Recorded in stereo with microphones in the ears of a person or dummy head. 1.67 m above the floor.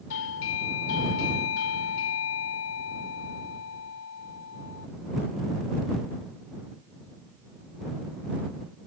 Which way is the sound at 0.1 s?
75° left (ahead or behind).